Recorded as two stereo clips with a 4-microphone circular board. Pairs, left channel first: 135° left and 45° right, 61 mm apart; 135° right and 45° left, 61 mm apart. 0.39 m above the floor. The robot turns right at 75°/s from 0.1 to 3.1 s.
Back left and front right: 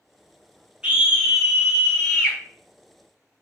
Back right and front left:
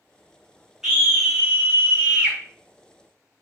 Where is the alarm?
I don't hear an alarm.